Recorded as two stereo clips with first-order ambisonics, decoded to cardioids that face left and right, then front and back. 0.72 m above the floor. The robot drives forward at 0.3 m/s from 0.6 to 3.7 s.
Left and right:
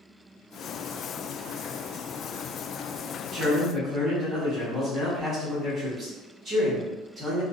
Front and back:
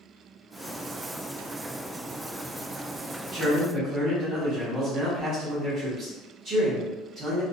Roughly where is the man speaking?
Behind right.